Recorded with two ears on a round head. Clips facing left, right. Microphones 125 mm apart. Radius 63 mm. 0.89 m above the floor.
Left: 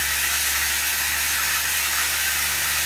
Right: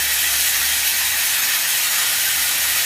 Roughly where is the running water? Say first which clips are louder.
Right 1 dB; right.